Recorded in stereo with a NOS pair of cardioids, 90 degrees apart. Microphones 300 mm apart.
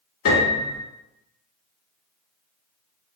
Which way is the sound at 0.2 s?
45° left.